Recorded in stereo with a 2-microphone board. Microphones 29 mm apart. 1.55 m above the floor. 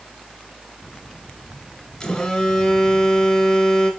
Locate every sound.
2.0 s a phone buzzing: 20° left (ahead or behind), 1.6 m